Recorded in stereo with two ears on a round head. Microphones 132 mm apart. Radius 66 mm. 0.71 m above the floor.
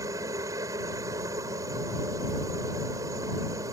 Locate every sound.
0.0 s a helicopter: 25° right (ahead or behind)